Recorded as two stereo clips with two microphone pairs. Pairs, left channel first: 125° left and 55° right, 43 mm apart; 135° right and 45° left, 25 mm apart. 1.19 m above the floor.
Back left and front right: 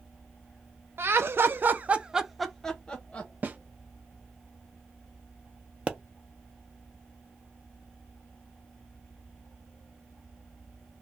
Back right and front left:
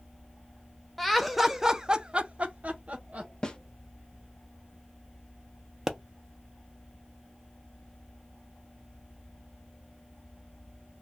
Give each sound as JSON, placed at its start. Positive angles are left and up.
{"t": 1.0, "sound": "laughter", "azimuth_deg": -50, "distance_m": 0.7}
{"t": 3.4, "sound": "a snare drum", "azimuth_deg": -90, "distance_m": 0.5}
{"t": 5.9, "sound": "a pop", "azimuth_deg": -15, "distance_m": 0.5}